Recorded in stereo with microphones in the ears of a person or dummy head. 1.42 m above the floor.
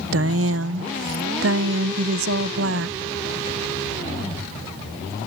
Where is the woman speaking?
75° right (ahead or behind).